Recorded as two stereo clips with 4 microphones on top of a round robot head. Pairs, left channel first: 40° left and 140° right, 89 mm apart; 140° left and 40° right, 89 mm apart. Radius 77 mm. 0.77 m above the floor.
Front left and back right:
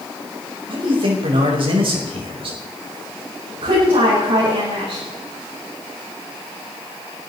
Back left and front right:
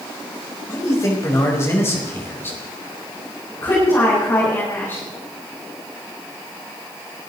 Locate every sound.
0.7 s a man speaking: 165° right, 5 m; by 2.6 s 155° right, 5 m
3.6 s a woman speaking: 160° right, 6.5 m